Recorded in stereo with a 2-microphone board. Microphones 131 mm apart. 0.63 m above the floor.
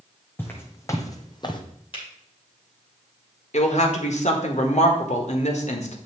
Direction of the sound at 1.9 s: 40° left (ahead or behind).